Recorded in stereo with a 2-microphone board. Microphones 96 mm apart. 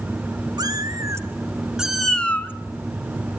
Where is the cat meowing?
45° right (ahead or behind), 2.5 m; by 2.5 s 20° left (ahead or behind), 1.9 m.